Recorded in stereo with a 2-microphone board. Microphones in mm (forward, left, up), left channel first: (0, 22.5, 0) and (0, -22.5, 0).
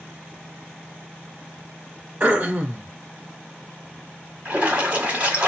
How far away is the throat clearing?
About 1.0 m.